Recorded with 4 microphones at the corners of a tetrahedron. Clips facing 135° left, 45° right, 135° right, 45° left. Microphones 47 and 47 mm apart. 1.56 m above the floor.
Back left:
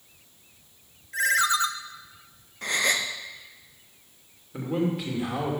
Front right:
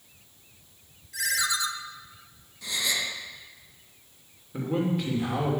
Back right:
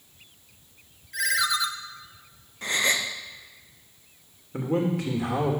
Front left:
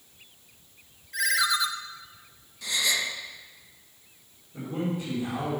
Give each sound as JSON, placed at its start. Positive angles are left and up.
{"t": 1.1, "sound": "a ringtone", "azimuth_deg": 135, "distance_m": 0.6}
{"t": 2.6, "sound": "a gasp", "azimuth_deg": 175, "distance_m": 0.8}
{"t": 4.5, "sound": "a man speaking", "azimuth_deg": -135, "distance_m": 2.5}